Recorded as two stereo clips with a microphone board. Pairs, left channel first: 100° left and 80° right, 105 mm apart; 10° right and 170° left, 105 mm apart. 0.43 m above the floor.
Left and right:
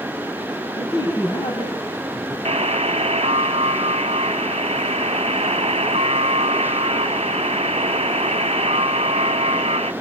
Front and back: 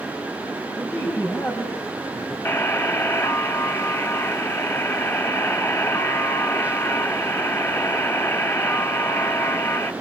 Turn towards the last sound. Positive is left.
turn(degrees=-80)